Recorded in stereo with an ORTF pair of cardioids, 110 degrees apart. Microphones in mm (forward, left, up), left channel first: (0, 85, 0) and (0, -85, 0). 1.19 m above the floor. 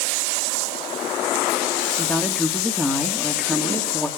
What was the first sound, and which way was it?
A woman speaking, straight ahead.